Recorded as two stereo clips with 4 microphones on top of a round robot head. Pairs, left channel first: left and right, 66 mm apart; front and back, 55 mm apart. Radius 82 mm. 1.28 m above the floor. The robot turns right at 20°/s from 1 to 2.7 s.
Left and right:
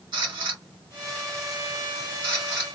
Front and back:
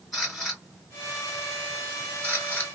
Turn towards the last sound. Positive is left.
turn(degrees=-55)